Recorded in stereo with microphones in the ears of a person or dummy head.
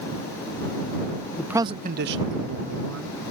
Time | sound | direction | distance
1.4 | a man speaking | 5° left (ahead or behind) | ?